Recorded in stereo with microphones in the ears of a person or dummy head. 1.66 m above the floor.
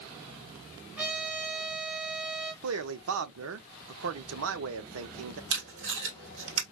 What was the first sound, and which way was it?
A trumpet, 10° right (ahead or behind).